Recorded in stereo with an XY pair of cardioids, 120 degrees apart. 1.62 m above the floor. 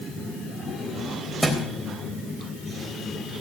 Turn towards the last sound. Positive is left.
turn(degrees=-10)